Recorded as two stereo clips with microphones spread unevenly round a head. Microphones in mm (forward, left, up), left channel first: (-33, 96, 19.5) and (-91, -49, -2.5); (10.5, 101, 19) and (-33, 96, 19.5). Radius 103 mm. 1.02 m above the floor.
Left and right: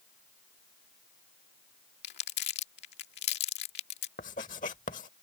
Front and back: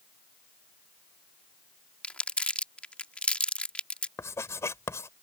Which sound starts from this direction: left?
Crumpling, at 2.0 s.